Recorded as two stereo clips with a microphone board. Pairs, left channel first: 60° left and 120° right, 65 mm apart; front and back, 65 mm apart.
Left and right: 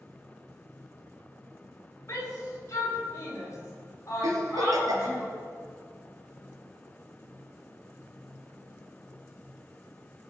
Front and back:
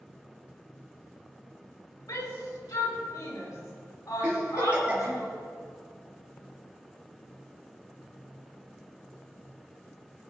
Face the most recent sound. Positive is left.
turn(degrees=-110)